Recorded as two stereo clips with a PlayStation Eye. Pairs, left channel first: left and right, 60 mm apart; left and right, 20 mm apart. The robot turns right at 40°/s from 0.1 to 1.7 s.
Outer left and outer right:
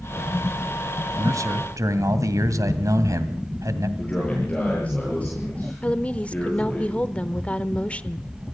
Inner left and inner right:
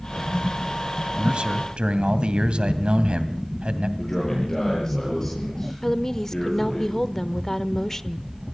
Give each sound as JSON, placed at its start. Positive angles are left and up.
{"t": 1.2, "sound": "a man speaking", "side_deg": -60, "distance_m": 2.0}
{"t": 4.0, "sound": "a man speaking", "side_deg": 25, "distance_m": 9.0}
{"t": 5.8, "sound": "a woman speaking", "side_deg": 25, "distance_m": 0.9}